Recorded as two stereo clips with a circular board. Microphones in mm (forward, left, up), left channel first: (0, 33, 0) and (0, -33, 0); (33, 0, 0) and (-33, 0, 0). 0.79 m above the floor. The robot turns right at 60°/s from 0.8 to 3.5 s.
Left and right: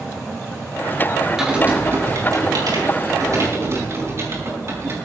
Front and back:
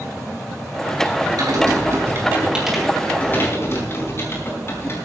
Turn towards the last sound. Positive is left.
turn(degrees=-45)